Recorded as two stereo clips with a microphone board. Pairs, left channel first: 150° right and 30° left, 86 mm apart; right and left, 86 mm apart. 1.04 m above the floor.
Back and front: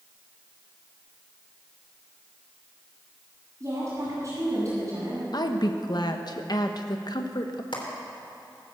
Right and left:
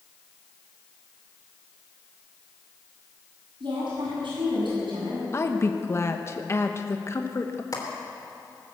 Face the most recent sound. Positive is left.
turn(degrees=-130)